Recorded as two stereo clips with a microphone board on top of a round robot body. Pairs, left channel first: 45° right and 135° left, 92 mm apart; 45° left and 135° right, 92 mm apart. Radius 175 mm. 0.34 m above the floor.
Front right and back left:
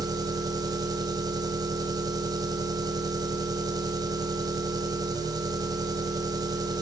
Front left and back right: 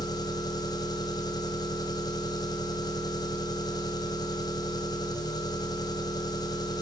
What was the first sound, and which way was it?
An engine running, 90° left.